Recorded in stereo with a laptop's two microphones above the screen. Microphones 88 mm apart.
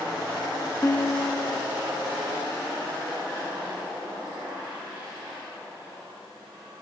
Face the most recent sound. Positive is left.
turn(degrees=35)  # may be behind; listen again after turning